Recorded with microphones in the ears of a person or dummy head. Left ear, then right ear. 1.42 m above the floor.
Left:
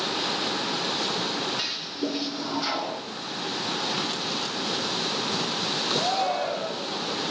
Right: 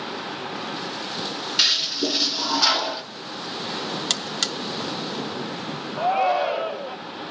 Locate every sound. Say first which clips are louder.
1.6 s a toilet flushing: right 10 dB; 40° right (ahead or behind), 1.1 m
4.1 s a buzzer: right 3 dB; 60° right (ahead or behind), 1.3 m
6.0 s a shout: right 9 dB; 90° right, 1.2 m